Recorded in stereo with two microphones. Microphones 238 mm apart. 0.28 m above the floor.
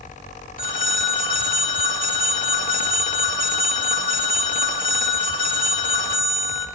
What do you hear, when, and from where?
0.6 s a phone ringing: 35° left (ahead or behind), 0.9 m